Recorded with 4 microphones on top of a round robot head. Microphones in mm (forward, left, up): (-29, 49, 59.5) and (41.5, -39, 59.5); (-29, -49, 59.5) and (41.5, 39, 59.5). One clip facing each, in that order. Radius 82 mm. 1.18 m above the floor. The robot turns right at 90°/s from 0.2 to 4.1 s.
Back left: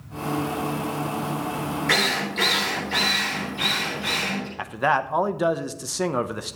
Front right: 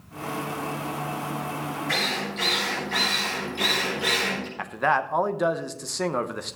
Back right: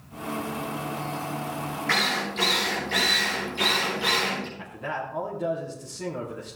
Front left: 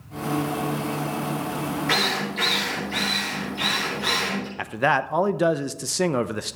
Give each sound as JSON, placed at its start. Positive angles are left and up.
{"t": 1.9, "sound": "a drill", "azimuth_deg": 125, "distance_m": 4.5}
{"t": 4.6, "sound": "a man speaking", "azimuth_deg": 45, "distance_m": 0.6}